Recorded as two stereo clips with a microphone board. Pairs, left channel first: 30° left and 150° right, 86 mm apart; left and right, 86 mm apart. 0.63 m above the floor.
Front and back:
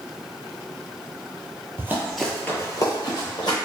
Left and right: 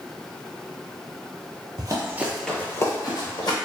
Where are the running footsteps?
95° right, 0.8 m; by 3.6 s 60° left, 1.6 m.